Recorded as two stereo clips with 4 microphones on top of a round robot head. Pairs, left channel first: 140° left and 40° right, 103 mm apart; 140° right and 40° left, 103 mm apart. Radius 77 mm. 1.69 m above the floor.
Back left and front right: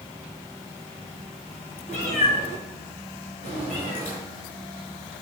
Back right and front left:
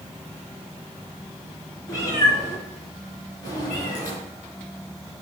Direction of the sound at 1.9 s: 160° left.